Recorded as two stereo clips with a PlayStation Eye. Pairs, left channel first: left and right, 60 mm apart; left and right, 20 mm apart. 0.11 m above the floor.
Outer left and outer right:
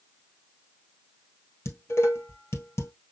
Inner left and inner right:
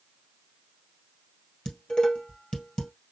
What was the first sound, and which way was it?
Dishes clattering, 50° left (ahead or behind).